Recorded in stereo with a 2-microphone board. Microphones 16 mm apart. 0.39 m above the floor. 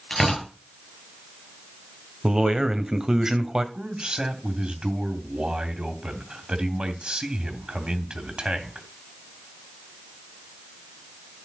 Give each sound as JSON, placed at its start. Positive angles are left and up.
{"t": 0.1, "sound": "tearing paper", "side_deg": 5, "distance_m": 8.5}
{"t": 2.2, "sound": "a man speaking", "side_deg": -40, "distance_m": 1.6}
{"t": 3.8, "sound": "a man speaking", "side_deg": -65, "distance_m": 2.5}